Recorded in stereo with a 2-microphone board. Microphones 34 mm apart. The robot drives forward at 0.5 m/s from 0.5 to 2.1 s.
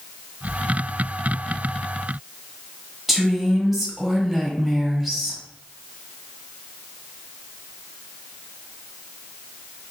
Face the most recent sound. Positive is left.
turn(degrees=-10)  # may be behind; listen again after turning